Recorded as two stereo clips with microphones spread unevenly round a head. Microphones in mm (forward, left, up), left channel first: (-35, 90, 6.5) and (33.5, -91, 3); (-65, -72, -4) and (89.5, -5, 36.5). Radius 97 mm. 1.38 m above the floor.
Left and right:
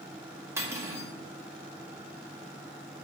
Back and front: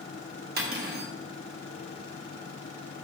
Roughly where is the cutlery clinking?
Ahead.